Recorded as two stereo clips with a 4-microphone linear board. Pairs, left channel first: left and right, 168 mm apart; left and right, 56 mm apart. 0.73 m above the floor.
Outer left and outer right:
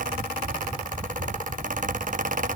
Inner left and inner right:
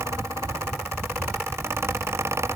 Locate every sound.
Only background noise.